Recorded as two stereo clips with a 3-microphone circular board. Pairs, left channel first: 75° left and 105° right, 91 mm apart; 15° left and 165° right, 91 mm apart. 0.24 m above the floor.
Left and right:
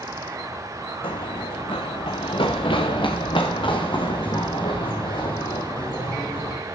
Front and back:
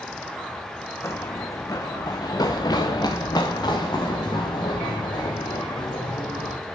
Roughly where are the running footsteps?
Left.